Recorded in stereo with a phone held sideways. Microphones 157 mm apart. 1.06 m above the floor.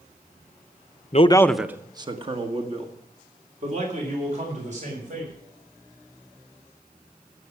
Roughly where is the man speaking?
Left.